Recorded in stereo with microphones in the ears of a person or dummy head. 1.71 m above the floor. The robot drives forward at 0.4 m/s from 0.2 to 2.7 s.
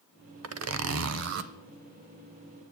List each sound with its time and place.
0.4 s a zipper: 85° right, 0.6 m; by 1.5 s 60° right (ahead or behind), 0.7 m